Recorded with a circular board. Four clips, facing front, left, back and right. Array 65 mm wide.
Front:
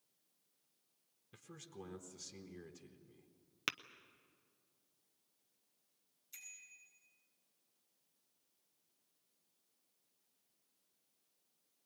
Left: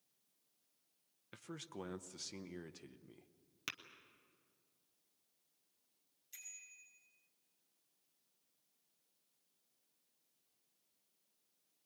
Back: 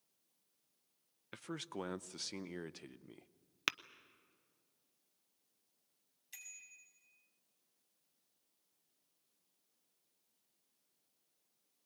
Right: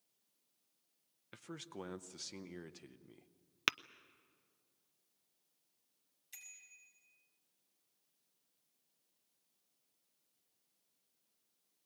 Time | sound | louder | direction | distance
1.3 | a man speaking | right 1 dB, back 10 dB | 175° right | 0.7 m
3.7 | tapping | right 12 dB, back 3 dB | 105° right | 0.5 m
6.3 | a bicycle bell | even, back 1 dB | 145° right | 6 m